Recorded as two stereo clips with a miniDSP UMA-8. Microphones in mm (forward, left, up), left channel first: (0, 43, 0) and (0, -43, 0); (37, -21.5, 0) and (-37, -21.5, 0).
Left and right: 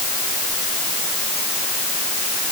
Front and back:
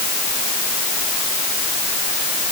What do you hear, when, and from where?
Only background noise.